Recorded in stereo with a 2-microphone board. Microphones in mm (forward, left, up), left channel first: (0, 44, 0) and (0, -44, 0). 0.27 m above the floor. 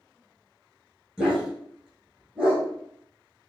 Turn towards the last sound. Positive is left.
turn(degrees=-5)  # may be behind; listen again after turning